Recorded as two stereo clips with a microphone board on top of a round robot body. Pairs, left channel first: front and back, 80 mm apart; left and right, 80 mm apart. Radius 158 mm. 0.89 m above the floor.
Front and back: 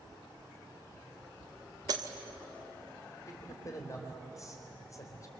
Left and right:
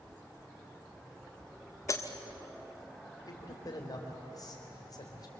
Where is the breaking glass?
140° left, 1.5 m.